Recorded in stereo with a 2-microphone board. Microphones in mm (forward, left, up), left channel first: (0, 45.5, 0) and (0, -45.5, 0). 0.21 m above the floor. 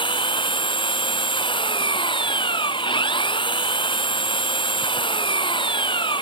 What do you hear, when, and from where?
0.0 s an engine running: 70° left (ahead or behind)